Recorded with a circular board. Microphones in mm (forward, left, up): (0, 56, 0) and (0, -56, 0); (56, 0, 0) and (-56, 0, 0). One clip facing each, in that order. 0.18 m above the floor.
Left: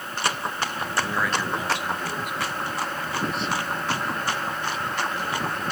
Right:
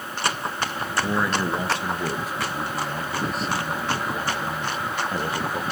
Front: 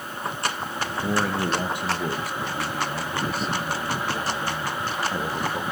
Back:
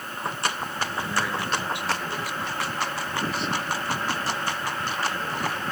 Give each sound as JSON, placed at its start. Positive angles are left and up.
{"t": 1.0, "sound": "a man speaking", "azimuth_deg": -25, "distance_m": 3.0}